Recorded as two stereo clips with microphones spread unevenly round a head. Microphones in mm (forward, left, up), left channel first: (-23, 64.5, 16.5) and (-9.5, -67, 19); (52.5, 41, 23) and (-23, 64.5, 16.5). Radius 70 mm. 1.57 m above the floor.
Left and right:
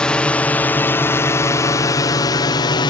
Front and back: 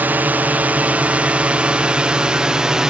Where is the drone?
170° left; by 2.9 s 95° left.